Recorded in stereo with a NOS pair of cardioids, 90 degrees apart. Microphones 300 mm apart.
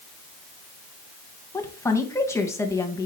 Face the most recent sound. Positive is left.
turn(degrees=10)